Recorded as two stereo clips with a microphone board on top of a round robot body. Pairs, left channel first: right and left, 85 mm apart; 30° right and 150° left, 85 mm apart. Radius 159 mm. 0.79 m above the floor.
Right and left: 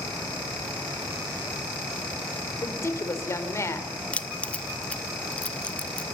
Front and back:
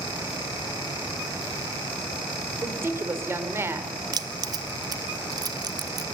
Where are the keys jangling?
165° right, 0.8 m.